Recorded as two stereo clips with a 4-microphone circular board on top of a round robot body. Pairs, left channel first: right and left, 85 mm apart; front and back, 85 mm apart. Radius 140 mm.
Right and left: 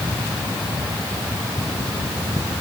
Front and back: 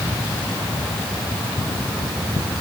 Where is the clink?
No clink in this recording.